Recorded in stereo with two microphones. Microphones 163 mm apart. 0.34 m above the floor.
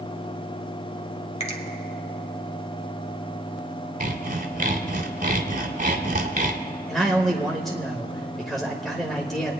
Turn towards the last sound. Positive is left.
turn(degrees=0)  # may be behind; listen again after turning